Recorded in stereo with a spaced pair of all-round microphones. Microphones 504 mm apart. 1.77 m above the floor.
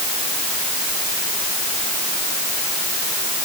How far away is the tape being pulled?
I don't hear tape being pulled.